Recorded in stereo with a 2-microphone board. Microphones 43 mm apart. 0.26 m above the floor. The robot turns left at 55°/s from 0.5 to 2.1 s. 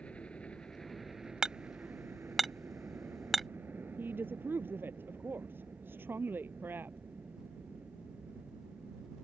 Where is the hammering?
20° right (ahead or behind); by 3.5 s centre (ahead or behind).